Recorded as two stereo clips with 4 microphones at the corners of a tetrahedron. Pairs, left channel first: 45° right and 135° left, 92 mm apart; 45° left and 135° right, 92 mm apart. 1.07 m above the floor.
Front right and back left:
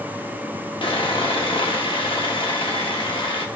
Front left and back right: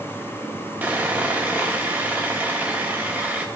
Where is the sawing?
65° right, 1.4 m.